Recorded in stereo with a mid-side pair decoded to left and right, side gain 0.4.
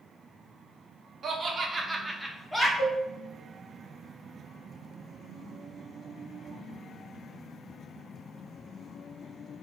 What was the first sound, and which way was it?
Laughter, 65° right.